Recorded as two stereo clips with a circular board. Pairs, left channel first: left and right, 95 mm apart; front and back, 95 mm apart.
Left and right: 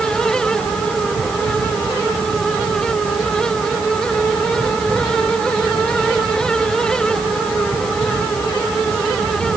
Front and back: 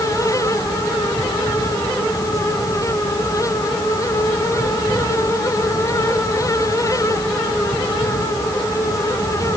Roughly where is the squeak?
I don't hear a squeak.